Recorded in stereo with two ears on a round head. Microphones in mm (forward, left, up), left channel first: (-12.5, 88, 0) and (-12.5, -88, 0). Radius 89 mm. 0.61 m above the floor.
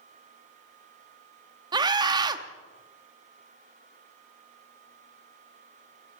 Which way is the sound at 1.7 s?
20° right (ahead or behind).